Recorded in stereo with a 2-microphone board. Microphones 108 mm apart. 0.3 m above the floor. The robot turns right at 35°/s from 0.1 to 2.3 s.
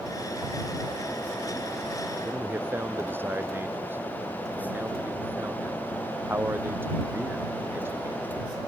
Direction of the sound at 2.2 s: 20° right (ahead or behind).